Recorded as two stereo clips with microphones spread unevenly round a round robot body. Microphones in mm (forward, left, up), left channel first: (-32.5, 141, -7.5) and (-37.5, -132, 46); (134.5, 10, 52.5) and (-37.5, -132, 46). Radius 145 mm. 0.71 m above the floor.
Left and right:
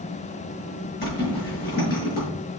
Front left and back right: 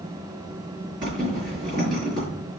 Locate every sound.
1.0 s a zipper: 145° left, 5 m